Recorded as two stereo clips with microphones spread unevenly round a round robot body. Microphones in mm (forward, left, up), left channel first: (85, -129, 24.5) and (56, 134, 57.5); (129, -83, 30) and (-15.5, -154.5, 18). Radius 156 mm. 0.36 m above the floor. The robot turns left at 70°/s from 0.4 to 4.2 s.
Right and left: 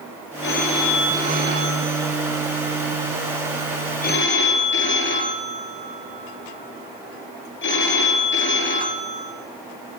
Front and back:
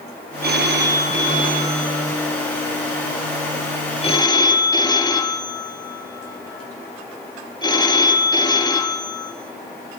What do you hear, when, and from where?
0.4 s a phone ringing: 135° right, 5 m; by 9.3 s 40° right, 5 m